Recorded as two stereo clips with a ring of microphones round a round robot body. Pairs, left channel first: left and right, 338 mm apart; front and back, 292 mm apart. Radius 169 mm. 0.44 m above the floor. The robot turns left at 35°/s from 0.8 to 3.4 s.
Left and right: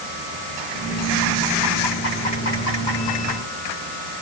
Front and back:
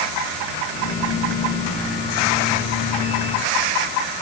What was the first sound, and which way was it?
Only background noise.